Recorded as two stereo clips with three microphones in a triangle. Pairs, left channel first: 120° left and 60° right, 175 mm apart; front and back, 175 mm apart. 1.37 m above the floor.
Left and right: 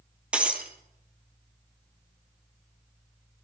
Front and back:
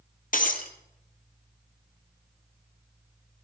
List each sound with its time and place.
0.3 s breaking glass: 25° left, 2.5 m